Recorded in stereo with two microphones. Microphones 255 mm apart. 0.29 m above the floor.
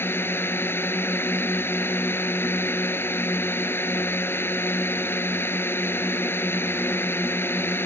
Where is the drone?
10° left (ahead or behind).